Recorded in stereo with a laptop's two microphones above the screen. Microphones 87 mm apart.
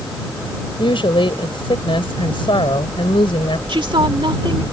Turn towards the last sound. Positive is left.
turn(degrees=-75)  # may be behind; listen again after turning